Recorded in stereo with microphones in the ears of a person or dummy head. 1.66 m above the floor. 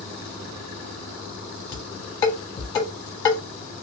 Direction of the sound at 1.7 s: 20° left (ahead or behind).